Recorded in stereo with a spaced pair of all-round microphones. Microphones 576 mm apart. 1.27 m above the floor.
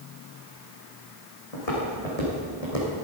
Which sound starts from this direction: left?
Footsteps, at 1.5 s.